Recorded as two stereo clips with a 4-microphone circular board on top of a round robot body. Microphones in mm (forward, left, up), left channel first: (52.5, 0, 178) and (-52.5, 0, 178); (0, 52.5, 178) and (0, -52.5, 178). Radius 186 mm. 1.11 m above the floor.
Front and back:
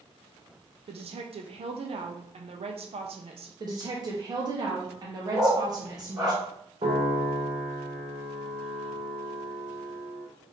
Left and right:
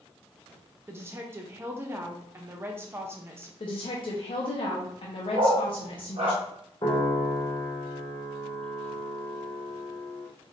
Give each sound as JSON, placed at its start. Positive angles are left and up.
{"t": 0.9, "sound": "a woman speaking", "azimuth_deg": -155, "distance_m": 0.5}
{"t": 3.6, "sound": "a woman speaking", "azimuth_deg": 130, "distance_m": 0.6}
{"t": 5.3, "sound": "a dog barking", "azimuth_deg": -115, "distance_m": 1.0}
{"t": 6.8, "sound": "a piano", "azimuth_deg": 140, "distance_m": 0.5}